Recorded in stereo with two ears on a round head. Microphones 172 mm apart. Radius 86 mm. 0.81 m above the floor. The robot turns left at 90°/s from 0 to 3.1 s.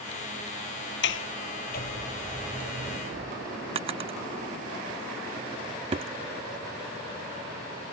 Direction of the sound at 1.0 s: 65° left (ahead or behind).